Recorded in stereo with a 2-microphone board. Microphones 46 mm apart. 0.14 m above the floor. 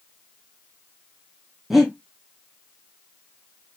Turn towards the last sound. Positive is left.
turn(degrees=-5)  # may be behind; listen again after turning